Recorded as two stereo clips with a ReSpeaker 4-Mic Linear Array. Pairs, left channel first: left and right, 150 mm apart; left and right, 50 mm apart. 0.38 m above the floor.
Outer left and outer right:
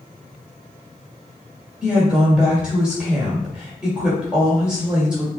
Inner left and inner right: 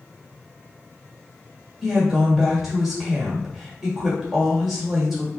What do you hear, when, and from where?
1.8 s a woman speaking: 5° right (ahead or behind), 1.7 m